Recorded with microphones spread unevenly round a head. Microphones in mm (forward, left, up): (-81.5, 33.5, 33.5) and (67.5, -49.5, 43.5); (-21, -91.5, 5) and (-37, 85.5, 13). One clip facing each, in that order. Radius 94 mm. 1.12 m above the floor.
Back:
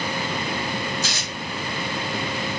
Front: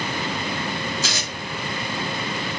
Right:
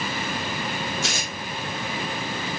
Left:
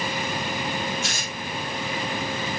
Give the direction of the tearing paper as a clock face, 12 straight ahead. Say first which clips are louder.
Front 2 dB, right 2 dB; 2 o'clock.